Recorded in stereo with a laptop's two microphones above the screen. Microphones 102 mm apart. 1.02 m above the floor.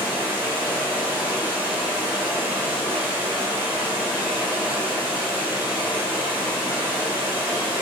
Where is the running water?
15° right (ahead or behind), 3.5 m.